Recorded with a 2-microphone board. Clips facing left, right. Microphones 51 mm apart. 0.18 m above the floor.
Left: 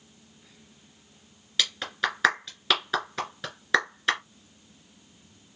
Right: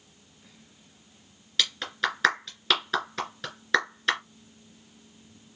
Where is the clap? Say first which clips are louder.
Even; 10° left (ahead or behind), 2.5 m.